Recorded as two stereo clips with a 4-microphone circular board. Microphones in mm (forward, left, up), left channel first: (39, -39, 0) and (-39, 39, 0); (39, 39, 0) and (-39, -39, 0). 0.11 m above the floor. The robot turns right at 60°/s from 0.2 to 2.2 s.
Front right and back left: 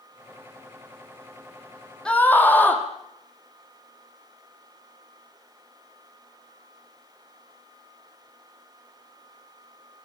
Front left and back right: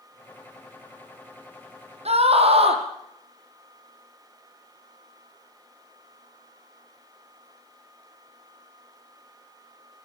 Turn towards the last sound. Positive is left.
turn(degrees=-120)